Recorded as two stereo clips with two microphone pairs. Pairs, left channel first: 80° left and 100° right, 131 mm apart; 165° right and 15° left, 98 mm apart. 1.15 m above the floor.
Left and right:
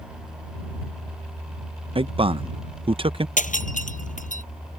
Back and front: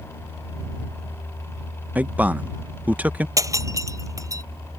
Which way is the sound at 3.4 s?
70° left.